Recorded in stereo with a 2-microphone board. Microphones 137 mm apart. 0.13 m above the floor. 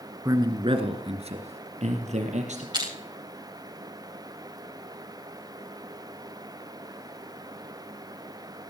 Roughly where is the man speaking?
Right.